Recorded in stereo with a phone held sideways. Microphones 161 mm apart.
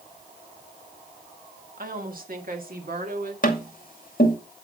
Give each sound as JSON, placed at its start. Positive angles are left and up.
{"t": 1.8, "sound": "a woman speaking", "side_deg": -60, "distance_m": 1.6}
{"t": 3.4, "sound": "tapping", "side_deg": 55, "distance_m": 2.0}